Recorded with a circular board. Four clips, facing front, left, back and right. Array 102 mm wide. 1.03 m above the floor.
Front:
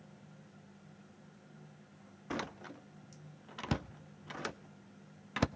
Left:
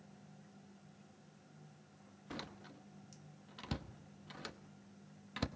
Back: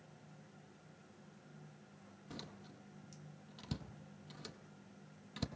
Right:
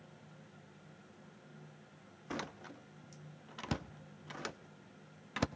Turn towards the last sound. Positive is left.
turn(degrees=-25)